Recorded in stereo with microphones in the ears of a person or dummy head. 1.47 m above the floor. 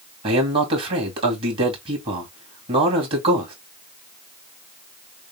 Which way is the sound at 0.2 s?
30° right (ahead or behind).